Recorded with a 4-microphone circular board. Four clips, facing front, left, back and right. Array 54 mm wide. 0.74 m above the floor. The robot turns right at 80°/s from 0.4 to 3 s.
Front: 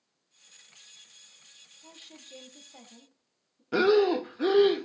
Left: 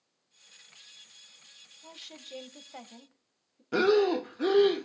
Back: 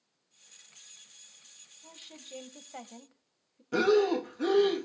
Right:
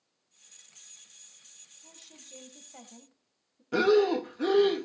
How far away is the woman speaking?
About 1.3 m.